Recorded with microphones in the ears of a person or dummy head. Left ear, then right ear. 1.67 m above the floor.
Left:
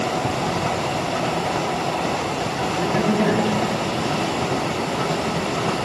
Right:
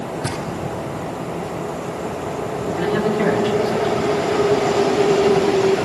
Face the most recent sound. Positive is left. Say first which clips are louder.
# right 2 dB
turn(degrees=-15)  # may be behind; listen again after turning